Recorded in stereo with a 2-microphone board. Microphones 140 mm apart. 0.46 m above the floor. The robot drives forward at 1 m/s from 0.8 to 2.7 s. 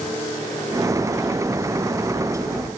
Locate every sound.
Only background noise.